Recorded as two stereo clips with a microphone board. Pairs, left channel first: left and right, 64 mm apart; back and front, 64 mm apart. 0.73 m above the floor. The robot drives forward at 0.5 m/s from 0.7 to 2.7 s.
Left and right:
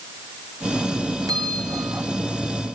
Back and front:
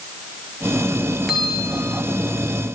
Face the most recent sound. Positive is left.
turn(degrees=-100)